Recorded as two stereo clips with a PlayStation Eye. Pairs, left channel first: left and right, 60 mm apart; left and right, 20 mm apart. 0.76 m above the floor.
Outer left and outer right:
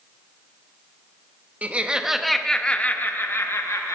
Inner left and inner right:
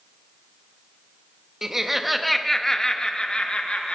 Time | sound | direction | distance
1.6 | laughter | 25° right (ahead or behind) | 0.9 m